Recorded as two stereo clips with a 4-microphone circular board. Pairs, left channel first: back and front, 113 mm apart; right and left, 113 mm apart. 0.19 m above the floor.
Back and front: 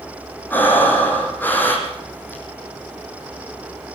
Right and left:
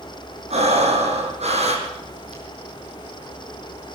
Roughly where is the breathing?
Left.